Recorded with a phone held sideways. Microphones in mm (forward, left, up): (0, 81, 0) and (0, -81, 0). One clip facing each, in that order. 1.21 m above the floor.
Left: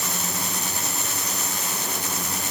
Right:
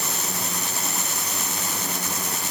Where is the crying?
I don't hear crying.